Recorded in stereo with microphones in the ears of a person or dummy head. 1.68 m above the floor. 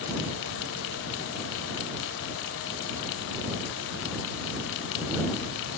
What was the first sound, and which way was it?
Only background noise.